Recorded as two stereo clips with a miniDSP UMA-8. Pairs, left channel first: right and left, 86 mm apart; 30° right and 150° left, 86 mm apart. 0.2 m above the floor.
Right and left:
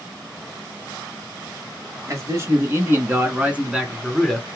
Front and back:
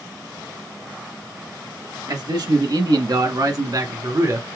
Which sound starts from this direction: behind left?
A man speaking, at 2.1 s.